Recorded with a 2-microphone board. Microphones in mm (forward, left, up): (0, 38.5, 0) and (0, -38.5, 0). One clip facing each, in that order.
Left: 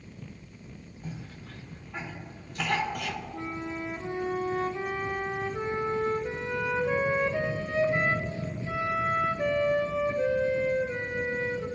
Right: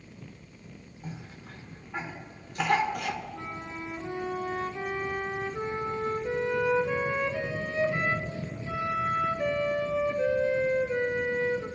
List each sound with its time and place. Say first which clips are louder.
1.0 s a cough: left 1 dB; 10° right (ahead or behind), 1.5 m
3.3 s a flute: left 3 dB; 30° left (ahead or behind), 1.5 m